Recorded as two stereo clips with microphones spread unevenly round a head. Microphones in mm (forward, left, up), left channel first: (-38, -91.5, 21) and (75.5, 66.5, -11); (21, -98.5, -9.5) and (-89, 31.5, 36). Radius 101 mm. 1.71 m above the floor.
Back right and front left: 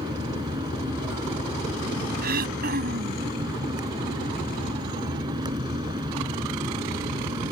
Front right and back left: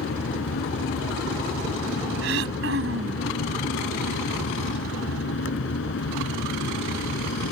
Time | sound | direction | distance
0.0 | a fan | 15° right | ?
2.2 | throat clearing | 105° left | ?